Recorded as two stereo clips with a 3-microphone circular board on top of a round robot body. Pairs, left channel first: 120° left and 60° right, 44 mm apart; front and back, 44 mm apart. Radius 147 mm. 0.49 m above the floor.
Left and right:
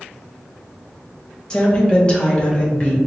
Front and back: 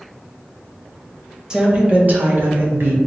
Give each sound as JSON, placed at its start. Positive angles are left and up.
{"t": 1.5, "sound": "a woman speaking", "azimuth_deg": 145, "distance_m": 1.0}